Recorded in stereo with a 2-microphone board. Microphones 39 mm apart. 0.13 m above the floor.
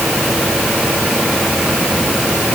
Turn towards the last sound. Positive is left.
No sound to turn to.